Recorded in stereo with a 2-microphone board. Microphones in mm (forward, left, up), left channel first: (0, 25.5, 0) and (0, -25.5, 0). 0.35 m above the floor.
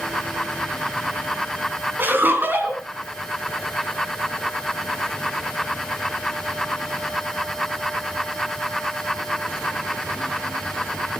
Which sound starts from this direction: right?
Laughter, at 2.0 s.